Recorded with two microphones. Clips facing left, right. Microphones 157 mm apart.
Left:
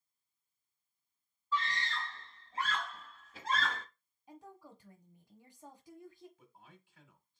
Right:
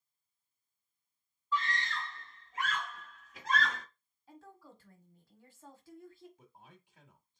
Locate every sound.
1.5 s a scream: 35° left (ahead or behind), 2.0 m; by 3.9 s 30° left (ahead or behind), 1.5 m
4.3 s a woman speaking: 20° left (ahead or behind), 1.1 m
6.4 s a man speaking: 20° right (ahead or behind), 1.2 m